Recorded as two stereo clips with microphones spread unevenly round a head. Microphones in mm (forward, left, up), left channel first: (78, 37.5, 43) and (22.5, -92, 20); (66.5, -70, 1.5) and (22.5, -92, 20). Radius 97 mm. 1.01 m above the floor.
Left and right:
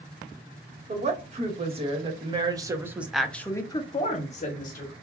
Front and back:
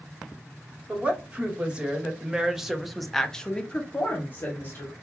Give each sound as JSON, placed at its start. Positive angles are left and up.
{"t": 0.9, "sound": "a woman speaking", "azimuth_deg": -80, "distance_m": 1.5}